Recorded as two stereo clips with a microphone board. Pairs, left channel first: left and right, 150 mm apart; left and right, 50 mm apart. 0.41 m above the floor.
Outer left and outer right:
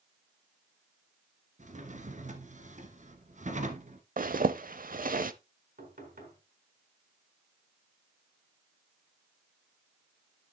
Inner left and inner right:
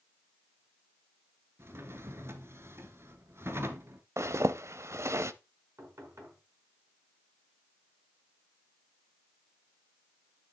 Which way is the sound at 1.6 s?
55° right (ahead or behind).